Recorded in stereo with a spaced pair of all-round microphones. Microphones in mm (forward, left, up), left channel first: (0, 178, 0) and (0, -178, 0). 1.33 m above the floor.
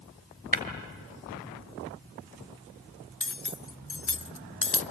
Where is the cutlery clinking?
40° left (ahead or behind), 0.5 m.